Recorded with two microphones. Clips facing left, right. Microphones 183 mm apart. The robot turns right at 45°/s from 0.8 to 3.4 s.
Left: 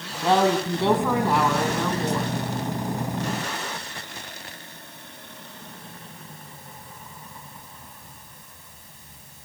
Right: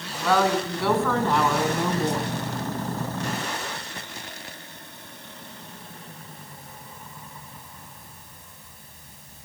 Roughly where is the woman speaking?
Behind left.